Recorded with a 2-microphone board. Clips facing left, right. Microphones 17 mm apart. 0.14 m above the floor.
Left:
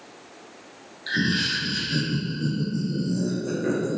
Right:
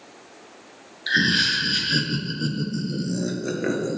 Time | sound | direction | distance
1.1 | laughter | 35° right (ahead or behind) | 1.8 m